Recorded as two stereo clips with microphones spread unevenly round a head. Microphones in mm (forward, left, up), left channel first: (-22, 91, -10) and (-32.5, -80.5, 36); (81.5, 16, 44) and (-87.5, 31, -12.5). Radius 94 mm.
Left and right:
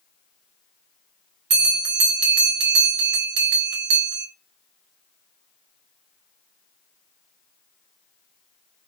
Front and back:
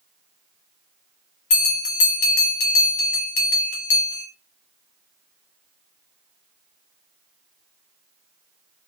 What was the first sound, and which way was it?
A bell, 55° right.